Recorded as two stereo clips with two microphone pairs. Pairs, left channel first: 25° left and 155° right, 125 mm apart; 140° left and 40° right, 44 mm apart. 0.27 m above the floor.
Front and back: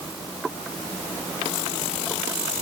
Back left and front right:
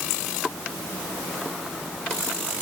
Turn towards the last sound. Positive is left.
No sound to turn to.